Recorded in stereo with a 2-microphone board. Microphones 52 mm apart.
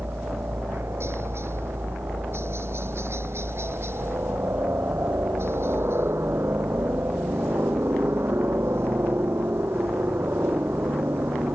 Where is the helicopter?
55° right (ahead or behind); by 11.6 s 50° right (ahead or behind).